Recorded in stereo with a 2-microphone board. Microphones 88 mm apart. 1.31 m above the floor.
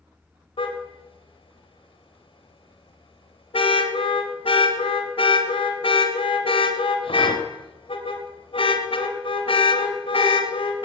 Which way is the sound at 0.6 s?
75° left (ahead or behind).